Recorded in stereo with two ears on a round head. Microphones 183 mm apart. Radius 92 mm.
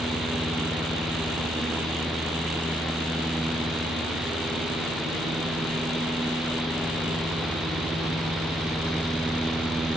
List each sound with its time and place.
Only background noise.